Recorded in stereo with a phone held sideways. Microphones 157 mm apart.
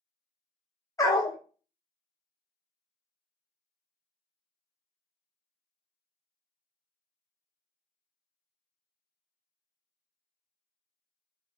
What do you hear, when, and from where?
1.0 s a dog barking: 20° left (ahead or behind), 0.5 m